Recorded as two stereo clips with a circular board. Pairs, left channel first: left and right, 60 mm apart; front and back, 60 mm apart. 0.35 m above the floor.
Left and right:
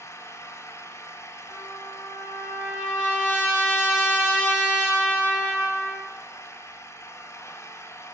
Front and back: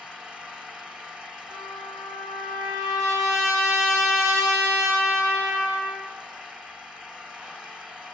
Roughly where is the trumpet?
Behind.